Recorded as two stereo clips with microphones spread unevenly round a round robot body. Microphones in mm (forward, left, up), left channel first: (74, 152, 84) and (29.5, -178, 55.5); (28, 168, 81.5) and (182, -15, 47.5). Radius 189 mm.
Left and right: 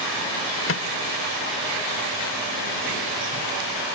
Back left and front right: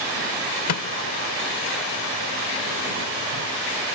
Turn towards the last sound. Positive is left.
turn(degrees=135)